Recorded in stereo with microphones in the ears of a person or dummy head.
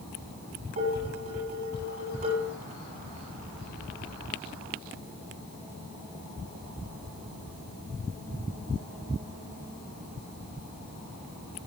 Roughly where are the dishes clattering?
Right.